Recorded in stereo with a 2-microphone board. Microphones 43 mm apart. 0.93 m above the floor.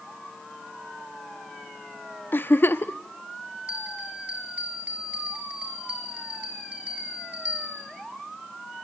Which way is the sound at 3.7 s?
35° right (ahead or behind).